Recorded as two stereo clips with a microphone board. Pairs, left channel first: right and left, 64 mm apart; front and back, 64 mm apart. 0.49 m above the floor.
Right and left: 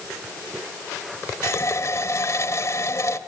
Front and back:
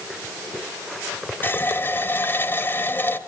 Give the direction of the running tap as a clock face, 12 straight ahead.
2 o'clock.